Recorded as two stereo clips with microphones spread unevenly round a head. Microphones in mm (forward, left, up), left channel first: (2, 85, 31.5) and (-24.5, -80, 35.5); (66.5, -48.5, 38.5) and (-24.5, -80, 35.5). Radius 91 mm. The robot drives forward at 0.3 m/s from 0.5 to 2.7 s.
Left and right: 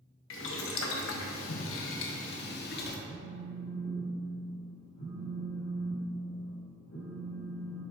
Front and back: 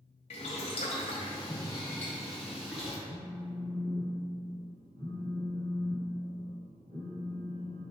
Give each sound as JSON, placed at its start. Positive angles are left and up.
{"t": 0.3, "sound": "boiling", "azimuth_deg": 60, "distance_m": 0.8}
{"t": 3.1, "sound": "a phone buzzing", "azimuth_deg": 110, "distance_m": 1.4}